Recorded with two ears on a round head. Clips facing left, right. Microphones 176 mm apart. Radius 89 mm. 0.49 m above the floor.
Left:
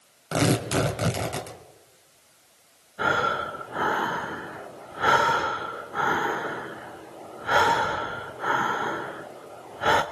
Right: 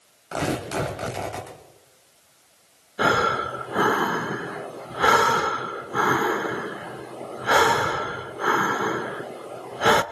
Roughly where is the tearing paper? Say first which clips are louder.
Left 3 dB; left.